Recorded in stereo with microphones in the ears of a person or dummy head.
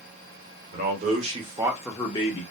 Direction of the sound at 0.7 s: 50° right (ahead or behind).